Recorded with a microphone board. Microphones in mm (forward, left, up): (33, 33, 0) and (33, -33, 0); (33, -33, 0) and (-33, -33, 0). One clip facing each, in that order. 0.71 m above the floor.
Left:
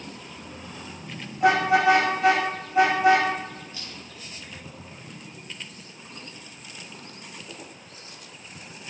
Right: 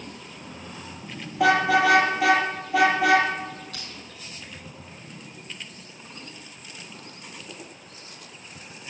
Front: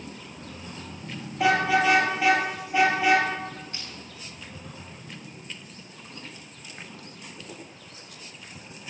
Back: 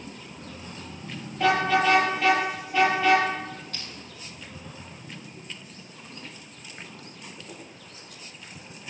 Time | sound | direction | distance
1.4 | a car horn | 80° right | 6.5 m
3.7 | crushing | 70° right | 6 m